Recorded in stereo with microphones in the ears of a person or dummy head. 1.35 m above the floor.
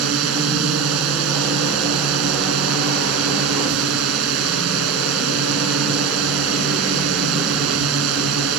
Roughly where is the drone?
Right.